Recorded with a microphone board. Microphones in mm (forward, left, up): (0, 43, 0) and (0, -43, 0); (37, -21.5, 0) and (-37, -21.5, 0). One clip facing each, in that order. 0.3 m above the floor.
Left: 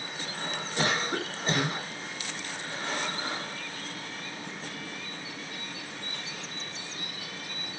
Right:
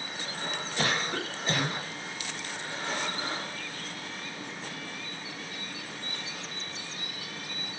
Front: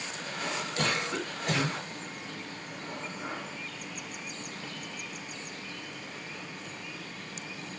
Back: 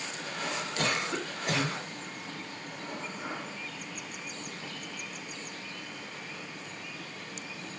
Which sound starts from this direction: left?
A cough, at 0.8 s.